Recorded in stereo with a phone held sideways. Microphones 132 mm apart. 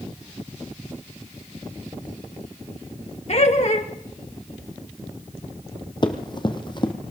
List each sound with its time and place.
3.3 s laughter: 55° left (ahead or behind), 2 m
6.0 s running footsteps: 35° left (ahead or behind), 1.7 m